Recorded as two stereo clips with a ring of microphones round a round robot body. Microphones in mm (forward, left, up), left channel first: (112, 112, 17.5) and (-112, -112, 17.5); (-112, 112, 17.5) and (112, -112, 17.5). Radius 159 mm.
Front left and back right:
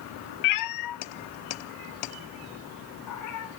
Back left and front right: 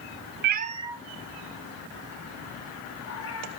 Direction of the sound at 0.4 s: 10° left.